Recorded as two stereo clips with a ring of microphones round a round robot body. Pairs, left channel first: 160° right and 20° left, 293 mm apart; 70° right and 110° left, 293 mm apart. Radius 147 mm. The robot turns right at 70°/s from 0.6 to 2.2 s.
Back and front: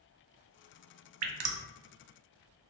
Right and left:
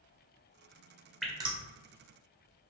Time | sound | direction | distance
1.2 | dripping | 20° left | 0.6 m